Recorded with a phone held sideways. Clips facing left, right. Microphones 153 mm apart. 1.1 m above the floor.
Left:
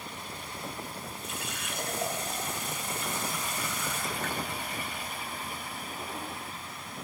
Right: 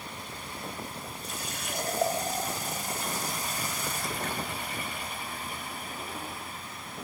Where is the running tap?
40° right (ahead or behind), 4 m.